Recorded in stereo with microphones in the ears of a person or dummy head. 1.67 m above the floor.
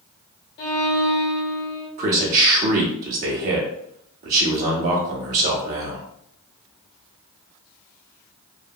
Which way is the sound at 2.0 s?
45° right (ahead or behind).